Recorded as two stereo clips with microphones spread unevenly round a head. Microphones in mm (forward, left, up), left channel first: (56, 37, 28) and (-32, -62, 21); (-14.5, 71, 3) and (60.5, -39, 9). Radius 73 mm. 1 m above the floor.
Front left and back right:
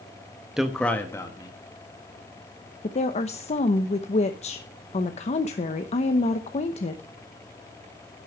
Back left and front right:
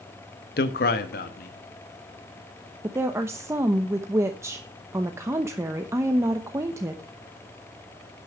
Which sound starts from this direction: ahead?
A woman speaking, at 2.8 s.